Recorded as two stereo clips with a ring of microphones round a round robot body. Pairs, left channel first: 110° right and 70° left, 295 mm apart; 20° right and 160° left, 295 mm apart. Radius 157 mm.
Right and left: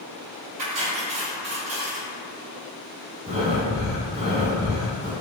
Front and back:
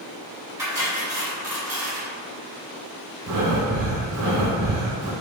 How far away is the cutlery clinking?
About 1.8 m.